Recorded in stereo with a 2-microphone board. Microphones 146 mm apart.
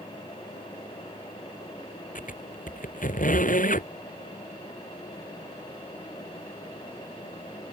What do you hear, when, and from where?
2.1 s a squeak: 60° left (ahead or behind)